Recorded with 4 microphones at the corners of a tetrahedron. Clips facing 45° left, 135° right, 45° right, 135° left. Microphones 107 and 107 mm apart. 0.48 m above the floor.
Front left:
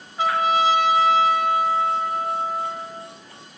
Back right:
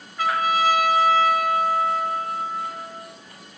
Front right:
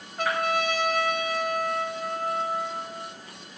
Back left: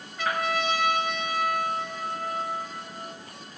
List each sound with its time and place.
0.2 s a trumpet: 20° right, 0.7 m